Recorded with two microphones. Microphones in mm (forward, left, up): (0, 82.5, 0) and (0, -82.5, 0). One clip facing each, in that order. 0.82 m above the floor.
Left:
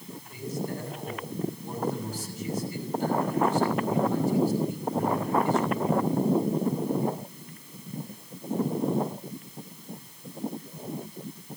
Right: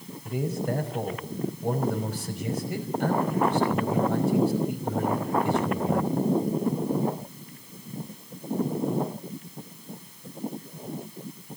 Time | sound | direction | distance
0.2 | a man speaking | 65° right (ahead or behind) | 5.5 m